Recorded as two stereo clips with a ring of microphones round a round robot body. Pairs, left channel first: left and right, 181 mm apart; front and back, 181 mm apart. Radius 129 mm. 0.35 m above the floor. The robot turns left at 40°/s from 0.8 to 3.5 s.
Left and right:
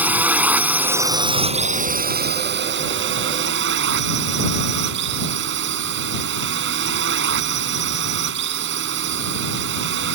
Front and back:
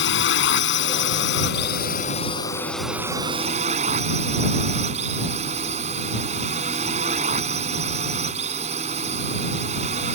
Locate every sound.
0.0 s a drone: 10° right; by 10.2 s 115° right